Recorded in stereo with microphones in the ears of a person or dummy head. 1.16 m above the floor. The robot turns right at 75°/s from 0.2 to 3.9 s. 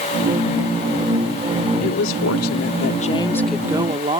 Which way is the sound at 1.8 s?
50° left.